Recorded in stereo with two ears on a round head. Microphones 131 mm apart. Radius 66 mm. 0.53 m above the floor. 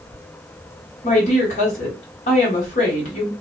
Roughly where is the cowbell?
I don't hear a cowbell.